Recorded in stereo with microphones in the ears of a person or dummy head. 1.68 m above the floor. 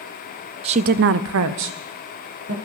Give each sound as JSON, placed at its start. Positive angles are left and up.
{"t": 0.6, "sound": "a woman speaking", "side_deg": -30, "distance_m": 0.6}